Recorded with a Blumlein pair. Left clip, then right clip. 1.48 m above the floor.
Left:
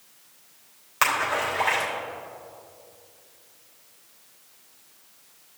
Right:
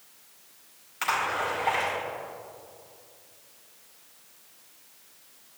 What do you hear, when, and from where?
1.0 s a splash: 55° left, 3.5 m